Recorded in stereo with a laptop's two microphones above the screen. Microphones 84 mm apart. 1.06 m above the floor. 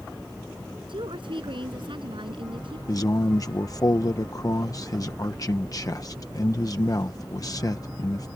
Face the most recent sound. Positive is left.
turn(degrees=45)  # may be behind; listen again after turning